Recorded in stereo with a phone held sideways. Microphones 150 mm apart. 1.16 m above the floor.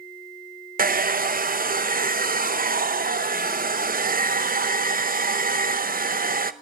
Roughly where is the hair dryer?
Right.